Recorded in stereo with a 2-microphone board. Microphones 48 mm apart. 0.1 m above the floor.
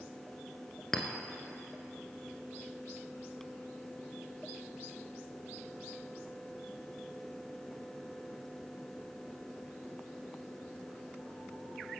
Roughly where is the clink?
Centre.